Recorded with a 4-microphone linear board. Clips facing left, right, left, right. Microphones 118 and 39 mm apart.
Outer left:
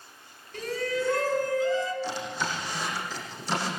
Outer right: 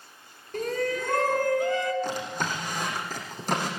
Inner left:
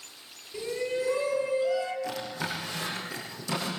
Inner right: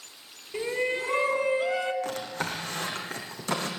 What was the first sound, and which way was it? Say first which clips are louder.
A shout: outer right 2 dB, inner right 2 dB; 50° right (ahead or behind).